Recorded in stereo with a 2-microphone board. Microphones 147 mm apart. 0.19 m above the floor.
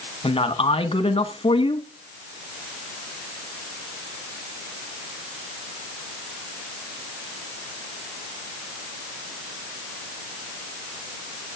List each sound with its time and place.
0.2 s a man speaking: 40° left (ahead or behind), 1.2 m